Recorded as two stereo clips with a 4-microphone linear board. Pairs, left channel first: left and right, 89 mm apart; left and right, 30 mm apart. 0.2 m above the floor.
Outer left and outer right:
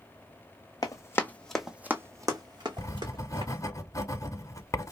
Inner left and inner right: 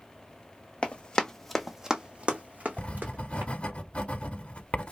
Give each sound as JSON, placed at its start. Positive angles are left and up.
{"t": 0.8, "sound": "running footsteps", "side_deg": 40, "distance_m": 0.8}
{"t": 2.8, "sound": "writing", "side_deg": 35, "distance_m": 0.6}